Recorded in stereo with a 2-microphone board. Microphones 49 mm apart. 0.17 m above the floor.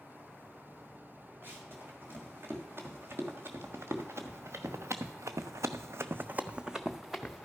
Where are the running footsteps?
45° right (ahead or behind), 3 m; by 7.5 s 10° left (ahead or behind), 1.0 m.